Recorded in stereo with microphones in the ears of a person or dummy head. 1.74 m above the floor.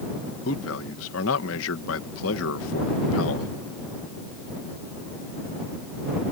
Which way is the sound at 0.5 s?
70° left (ahead or behind).